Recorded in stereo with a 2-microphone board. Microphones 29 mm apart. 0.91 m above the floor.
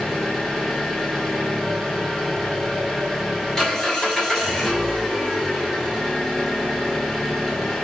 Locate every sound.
0.0 s an engine running: 15° left (ahead or behind), 2.5 m